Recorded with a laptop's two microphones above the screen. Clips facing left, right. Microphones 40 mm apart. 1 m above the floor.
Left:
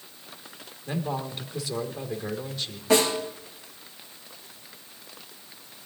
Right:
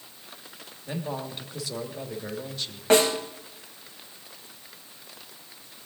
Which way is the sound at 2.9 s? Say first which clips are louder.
Right 2 dB; 55° right (ahead or behind).